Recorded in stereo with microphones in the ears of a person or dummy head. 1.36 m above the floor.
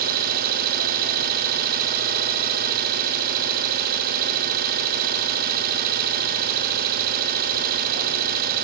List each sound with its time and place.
0.0 s an engine running: 45° right (ahead or behind), 1.7 m